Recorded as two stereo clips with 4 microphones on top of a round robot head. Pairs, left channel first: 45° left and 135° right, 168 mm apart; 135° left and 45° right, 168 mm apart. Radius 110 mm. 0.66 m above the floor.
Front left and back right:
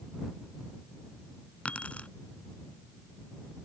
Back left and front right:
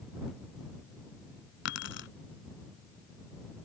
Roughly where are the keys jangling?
Behind left.